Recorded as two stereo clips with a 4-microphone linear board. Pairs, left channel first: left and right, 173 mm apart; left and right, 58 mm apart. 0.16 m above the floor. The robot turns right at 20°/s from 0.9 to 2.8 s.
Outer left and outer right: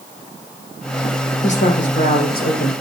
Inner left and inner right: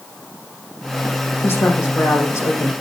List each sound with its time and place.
1.4 s a woman speaking: 40° left (ahead or behind), 6.5 m; by 2.7 s 65° left (ahead or behind), 6.5 m